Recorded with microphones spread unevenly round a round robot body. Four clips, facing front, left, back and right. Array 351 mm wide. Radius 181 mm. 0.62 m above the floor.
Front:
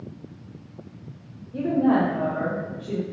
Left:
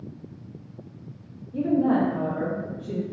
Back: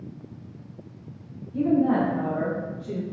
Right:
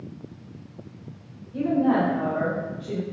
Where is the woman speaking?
60° left, 1.8 m; by 3.0 s 100° left, 1.4 m.